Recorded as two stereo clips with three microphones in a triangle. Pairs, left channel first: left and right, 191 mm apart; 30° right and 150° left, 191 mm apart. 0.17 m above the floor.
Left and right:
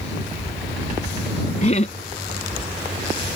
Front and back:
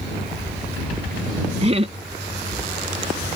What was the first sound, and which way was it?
Laughter, 115° left.